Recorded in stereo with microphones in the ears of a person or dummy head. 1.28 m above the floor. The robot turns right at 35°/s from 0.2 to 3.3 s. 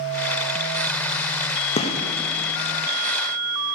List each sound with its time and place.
1.8 s a gunshot: 35° left (ahead or behind), 0.9 m; by 2.0 s 25° left (ahead or behind), 0.9 m